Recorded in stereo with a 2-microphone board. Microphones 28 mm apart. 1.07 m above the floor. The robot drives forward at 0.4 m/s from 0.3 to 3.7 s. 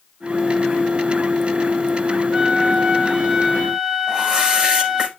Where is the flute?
30° right (ahead or behind), 1.0 m; by 5.1 s 20° right (ahead or behind), 1.4 m.